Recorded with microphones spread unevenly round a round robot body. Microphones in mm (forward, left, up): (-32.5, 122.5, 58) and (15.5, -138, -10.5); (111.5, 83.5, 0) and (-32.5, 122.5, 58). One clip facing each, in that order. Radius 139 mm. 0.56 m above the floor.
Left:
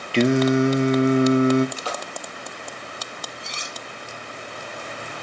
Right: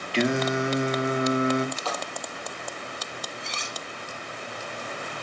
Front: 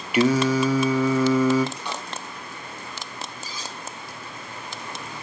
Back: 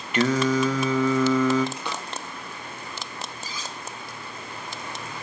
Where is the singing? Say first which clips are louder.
Left 7 dB, front 2 dB; 35° left, 1.1 m.